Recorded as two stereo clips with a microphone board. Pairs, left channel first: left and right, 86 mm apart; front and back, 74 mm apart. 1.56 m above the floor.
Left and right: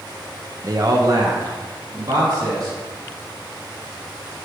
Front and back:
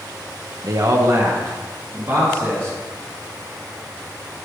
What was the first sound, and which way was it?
A man speaking, 140° right.